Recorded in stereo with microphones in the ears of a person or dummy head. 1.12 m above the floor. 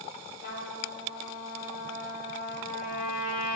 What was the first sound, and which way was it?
A trumpet, 60° left (ahead or behind).